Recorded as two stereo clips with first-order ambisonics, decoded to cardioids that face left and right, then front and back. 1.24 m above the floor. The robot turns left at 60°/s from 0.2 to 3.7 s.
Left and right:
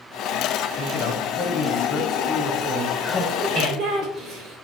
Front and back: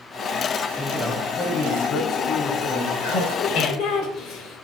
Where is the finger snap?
I don't hear a finger snap.